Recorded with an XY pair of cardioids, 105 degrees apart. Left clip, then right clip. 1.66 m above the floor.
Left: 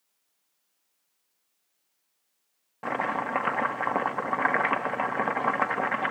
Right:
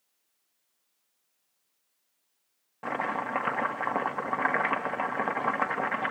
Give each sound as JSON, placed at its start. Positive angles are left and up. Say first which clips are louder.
{"t": 2.8, "sound": "chopping", "louder": "left 2 dB", "azimuth_deg": 15, "distance_m": 1.4}